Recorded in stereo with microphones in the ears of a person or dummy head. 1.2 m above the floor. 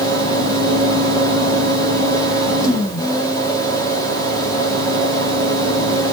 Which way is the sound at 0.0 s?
20° left (ahead or behind).